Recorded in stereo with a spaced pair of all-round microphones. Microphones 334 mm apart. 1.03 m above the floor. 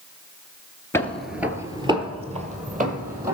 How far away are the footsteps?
About 1.0 m.